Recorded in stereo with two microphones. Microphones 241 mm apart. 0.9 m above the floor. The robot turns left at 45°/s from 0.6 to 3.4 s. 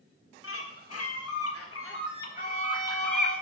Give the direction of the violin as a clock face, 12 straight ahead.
2 o'clock.